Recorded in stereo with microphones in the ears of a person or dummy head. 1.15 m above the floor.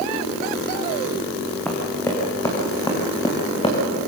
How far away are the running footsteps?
About 4 m.